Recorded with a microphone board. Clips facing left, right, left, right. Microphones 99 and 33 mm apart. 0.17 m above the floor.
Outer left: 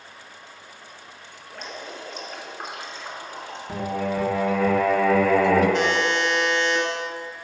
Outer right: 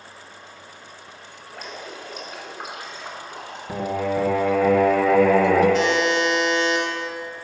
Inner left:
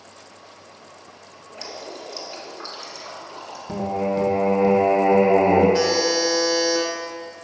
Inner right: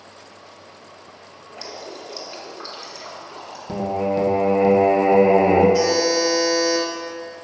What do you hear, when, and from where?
1.5 s dripping: 5° right (ahead or behind), 1.4 m
3.7 s singing: 20° right (ahead or behind), 1.3 m
5.7 s a buzzer: 40° left (ahead or behind), 1.7 m